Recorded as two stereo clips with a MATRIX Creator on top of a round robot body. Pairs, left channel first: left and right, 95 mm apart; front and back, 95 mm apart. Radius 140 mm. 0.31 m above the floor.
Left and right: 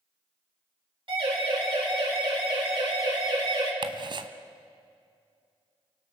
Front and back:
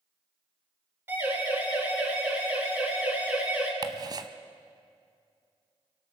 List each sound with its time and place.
1.1 s a siren: 120° right, 6.5 m; by 3.7 s 115° right, 5 m
3.8 s ticking: 130° right, 0.8 m